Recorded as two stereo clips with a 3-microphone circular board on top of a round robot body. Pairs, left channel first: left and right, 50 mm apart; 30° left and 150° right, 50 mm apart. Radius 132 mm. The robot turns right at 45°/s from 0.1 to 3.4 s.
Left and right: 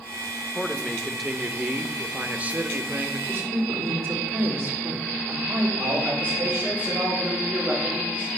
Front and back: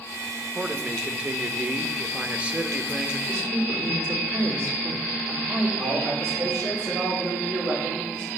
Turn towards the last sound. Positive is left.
turn(degrees=-145)